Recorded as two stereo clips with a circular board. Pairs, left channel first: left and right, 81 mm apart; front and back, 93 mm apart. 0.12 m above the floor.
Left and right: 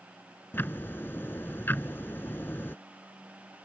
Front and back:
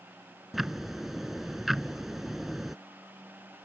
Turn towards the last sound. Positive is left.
turn(degrees=95)